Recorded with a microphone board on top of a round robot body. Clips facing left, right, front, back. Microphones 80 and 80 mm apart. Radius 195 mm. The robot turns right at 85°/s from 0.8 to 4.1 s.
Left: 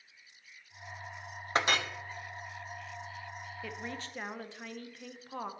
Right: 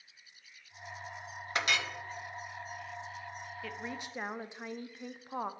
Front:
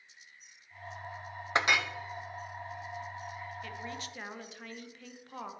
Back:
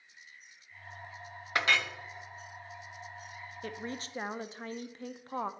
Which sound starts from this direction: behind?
A woman speaking, at 3.6 s.